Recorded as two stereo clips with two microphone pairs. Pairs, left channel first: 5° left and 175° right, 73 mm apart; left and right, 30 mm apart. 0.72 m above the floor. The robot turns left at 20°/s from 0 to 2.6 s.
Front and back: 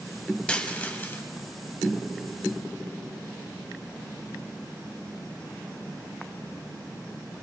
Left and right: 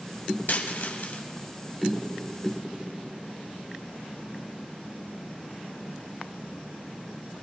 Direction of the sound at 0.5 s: 80° left.